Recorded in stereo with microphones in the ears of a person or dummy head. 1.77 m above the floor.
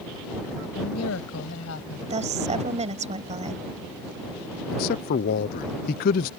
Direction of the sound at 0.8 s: 85° left.